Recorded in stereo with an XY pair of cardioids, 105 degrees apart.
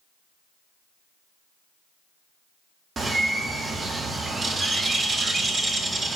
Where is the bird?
40° right, 0.6 m.